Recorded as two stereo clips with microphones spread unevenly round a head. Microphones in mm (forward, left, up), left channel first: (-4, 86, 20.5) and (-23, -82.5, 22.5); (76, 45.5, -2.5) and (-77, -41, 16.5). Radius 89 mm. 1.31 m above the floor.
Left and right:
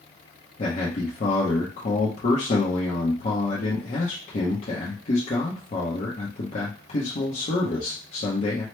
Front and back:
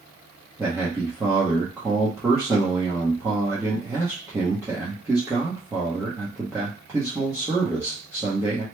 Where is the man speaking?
130° left, 0.8 m.